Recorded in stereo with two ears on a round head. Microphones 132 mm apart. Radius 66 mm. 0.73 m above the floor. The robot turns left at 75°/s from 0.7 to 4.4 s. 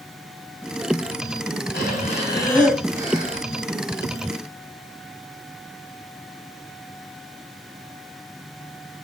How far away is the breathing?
About 3 m.